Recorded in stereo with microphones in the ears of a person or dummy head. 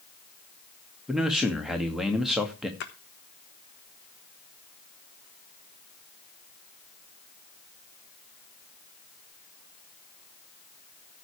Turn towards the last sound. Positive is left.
turn(degrees=55)  # may be behind; listen again after turning